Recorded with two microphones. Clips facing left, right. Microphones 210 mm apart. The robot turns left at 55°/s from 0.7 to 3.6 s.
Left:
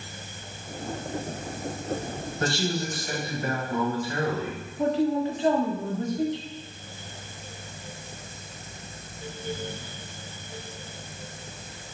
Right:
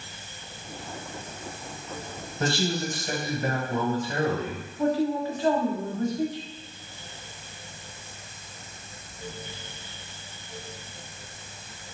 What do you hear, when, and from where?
2.4 s a man speaking: 25° right (ahead or behind), 1.3 m
4.8 s a man speaking: 25° left (ahead or behind), 0.9 m